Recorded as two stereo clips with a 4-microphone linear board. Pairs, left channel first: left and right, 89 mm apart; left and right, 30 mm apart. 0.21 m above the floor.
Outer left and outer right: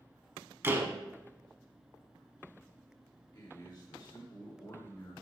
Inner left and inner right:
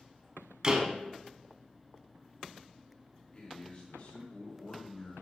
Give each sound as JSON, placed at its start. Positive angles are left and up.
{"t": 0.6, "sound": "a door slam", "side_deg": -25, "distance_m": 1.1}
{"t": 3.3, "sound": "a man speaking", "side_deg": 50, "distance_m": 3.5}